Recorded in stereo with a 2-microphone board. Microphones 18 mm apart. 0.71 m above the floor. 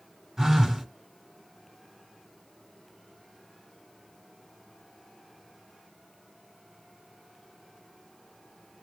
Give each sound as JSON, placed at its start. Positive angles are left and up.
{"t": 0.4, "sound": "a phone buzzing", "side_deg": -30, "distance_m": 2.0}